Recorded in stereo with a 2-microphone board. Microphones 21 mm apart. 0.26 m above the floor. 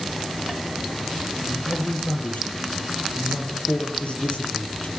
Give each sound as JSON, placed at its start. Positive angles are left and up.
{"t": 1.5, "sound": "a man speaking", "side_deg": 75, "distance_m": 5.0}